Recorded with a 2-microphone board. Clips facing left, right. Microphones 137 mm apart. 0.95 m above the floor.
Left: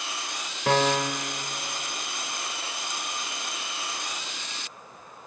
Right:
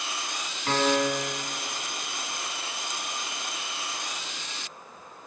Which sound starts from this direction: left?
A piano, at 0.7 s.